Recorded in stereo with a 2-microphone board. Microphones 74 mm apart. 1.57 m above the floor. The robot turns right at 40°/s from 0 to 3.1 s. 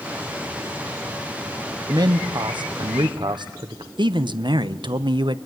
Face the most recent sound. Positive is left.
turn(degrees=-75)  # may be behind; listen again after turning